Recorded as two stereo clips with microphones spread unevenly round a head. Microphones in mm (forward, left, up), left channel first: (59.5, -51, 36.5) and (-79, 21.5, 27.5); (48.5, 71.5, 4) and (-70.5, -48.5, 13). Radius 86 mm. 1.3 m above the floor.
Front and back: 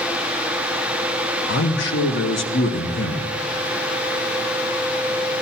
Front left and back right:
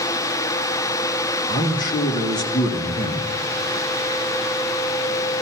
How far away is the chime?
No chime in this recording.